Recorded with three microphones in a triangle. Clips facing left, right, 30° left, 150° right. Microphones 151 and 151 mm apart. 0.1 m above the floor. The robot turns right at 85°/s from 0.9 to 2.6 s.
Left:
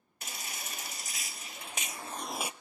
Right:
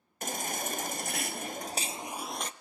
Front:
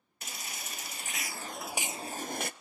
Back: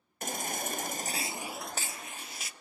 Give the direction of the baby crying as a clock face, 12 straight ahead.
4 o'clock.